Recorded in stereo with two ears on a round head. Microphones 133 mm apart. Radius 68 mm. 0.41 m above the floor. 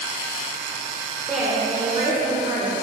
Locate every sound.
1.3 s a woman speaking: centre (ahead or behind), 1.4 m; by 2.7 s 40° right (ahead or behind), 1.6 m